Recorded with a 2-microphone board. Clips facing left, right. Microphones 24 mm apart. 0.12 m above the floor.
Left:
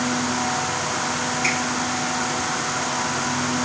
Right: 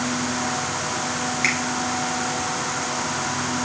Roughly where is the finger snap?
Right.